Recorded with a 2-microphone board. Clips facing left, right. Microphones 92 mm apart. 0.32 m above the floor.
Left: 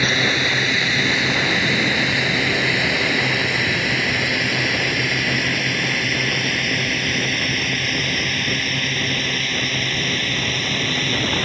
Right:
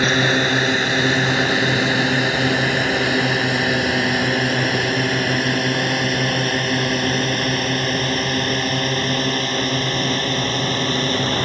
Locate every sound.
0.0 s a drone: 45° right (ahead or behind); by 11.4 s 35° right (ahead or behind)